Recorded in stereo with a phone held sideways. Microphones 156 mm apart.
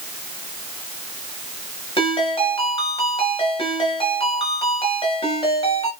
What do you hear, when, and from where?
2.0 s a ringtone: 35° left (ahead or behind), 5 m